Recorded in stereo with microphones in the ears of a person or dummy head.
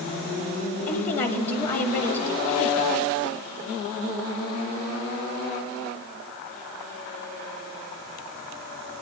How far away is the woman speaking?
About 1.4 m.